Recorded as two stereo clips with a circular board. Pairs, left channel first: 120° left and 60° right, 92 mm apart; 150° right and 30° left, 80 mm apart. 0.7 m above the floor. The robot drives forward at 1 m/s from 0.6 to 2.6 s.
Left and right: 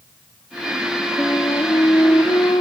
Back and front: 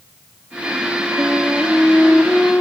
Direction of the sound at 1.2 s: 70° left.